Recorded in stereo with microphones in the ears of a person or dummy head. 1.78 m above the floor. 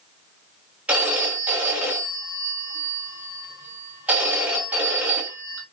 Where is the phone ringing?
5° right (ahead or behind), 1.3 m.